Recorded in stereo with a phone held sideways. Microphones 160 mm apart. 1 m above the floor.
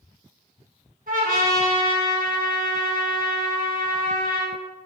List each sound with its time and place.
1.1 s a trumpet: 60° right (ahead or behind), 1.7 m